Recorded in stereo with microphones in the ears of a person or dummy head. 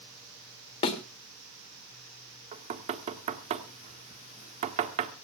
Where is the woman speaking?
I don't hear a woman speaking.